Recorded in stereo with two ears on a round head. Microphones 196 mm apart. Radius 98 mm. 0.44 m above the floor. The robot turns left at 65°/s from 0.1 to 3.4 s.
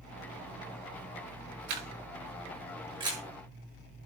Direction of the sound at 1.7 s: 70° right (ahead or behind).